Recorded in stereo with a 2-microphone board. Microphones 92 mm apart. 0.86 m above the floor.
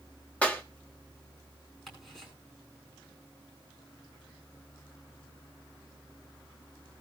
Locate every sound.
0.4 s a clap: 15° left (ahead or behind), 1.5 m
1.9 s ticking: 5° left (ahead or behind), 9 m